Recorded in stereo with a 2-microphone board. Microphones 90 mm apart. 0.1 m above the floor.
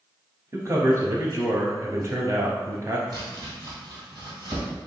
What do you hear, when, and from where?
0.5 s a man speaking: 35° right (ahead or behind), 1.3 m
3.1 s chopping: 45° right (ahead or behind), 1.8 m